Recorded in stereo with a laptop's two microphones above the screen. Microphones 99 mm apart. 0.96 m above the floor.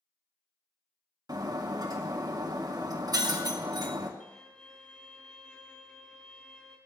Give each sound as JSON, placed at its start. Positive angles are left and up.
{"t": 1.3, "sound": "breaking glass", "side_deg": -45, "distance_m": 1.9}
{"t": 4.2, "sound": "a violin", "side_deg": 10, "distance_m": 6.0}